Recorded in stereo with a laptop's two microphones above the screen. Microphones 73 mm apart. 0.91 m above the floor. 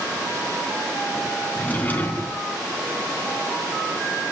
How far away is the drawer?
About 3.5 m.